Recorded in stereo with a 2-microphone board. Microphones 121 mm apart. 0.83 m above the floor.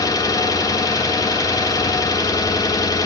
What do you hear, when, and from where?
0.0 s an engine running: 30° left (ahead or behind), 1.2 m